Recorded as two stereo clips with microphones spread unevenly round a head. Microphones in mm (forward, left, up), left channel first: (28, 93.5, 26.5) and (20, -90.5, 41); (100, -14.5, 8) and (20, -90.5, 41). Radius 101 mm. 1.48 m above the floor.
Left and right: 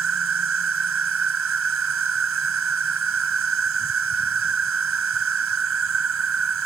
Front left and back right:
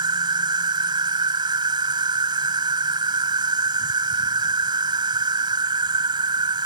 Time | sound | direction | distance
0.0 | an insect | 95° right | ?